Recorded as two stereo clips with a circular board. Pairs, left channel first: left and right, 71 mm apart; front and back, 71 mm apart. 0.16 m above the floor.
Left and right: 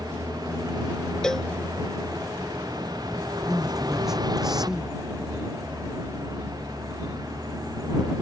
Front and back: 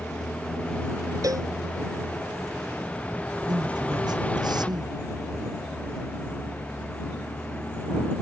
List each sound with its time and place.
0.0 s a vehicle: 70° right
1.2 s a cowbell: 170° left
3.5 s a man speaking: 175° right